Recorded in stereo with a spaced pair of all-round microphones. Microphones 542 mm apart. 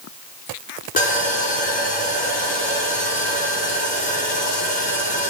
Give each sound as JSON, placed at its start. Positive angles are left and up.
{"t": 1.0, "sound": "sawing", "side_deg": 15, "distance_m": 4.5}